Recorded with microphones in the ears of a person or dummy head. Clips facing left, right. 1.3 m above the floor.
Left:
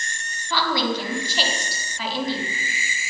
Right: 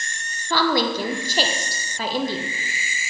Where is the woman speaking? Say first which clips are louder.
Right 3 dB; 40° right (ahead or behind), 0.8 m.